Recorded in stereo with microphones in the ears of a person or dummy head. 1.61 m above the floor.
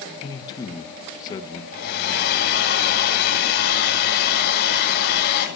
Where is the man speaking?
20° left (ahead or behind), 1.7 m.